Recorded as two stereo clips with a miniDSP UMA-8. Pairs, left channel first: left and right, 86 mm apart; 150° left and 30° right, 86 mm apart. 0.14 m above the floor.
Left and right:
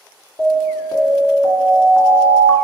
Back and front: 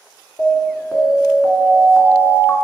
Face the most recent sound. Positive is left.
turn(degrees=95)